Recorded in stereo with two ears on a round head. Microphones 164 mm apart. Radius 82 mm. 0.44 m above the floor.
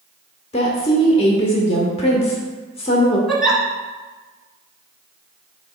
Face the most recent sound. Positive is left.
turn(degrees=-5)  # may be behind; listen again after turning